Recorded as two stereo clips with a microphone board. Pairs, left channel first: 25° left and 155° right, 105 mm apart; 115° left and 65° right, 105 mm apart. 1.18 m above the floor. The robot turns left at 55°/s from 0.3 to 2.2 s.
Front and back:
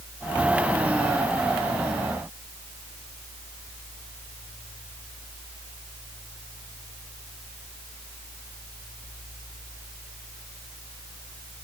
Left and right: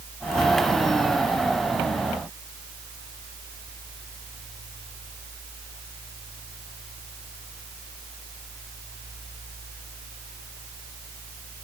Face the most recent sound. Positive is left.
No sound to turn to.